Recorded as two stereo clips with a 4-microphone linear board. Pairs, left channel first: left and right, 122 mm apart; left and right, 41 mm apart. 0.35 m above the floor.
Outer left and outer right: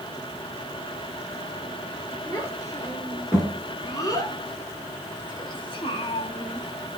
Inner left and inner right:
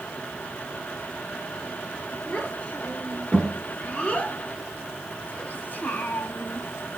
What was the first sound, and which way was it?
A child speaking, 25° left (ahead or behind).